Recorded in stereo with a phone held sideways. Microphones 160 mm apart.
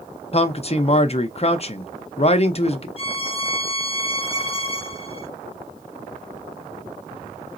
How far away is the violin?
About 0.7 m.